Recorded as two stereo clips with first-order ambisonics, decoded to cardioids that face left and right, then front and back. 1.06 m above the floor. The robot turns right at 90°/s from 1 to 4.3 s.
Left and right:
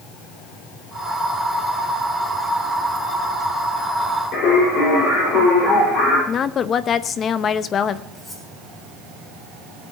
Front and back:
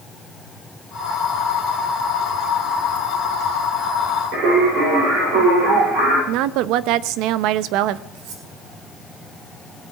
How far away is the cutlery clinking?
About 3.5 m.